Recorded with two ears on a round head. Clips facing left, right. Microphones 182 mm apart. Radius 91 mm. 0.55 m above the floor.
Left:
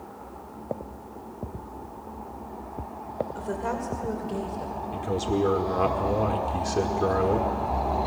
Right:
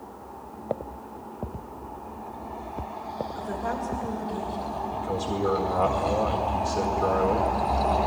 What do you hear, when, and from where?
3.4 s a woman speaking: 35° left (ahead or behind), 2.5 m; by 4.8 s 55° left (ahead or behind), 3.5 m
4.9 s a man speaking: 25° left (ahead or behind), 1.6 m